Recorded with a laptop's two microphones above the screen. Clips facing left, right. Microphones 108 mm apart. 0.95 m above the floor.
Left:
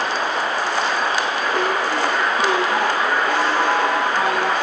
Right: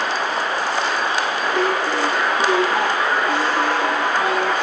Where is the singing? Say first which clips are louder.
Right 2 dB; 15° left (ahead or behind), 8 m.